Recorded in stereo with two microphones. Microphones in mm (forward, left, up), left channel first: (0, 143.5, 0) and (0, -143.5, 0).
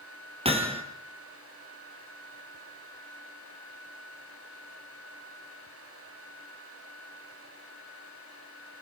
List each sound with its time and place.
0.5 s hammering: 20° right (ahead or behind), 2.5 m